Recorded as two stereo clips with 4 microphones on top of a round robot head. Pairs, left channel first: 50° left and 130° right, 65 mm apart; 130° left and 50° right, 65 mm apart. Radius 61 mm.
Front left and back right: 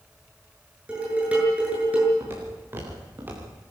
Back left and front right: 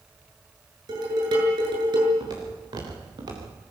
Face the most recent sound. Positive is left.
turn(degrees=-65)